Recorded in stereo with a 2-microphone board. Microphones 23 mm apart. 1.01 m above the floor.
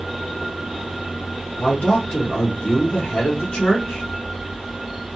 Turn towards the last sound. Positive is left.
turn(degrees=60)  # may be behind; listen again after turning